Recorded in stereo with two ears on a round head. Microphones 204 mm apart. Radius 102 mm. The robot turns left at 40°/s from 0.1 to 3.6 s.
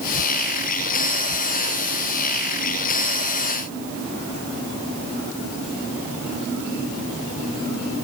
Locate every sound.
Only background noise.